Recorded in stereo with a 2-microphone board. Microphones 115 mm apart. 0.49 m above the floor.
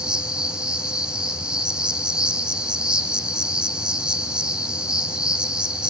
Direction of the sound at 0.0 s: 5° right (ahead or behind).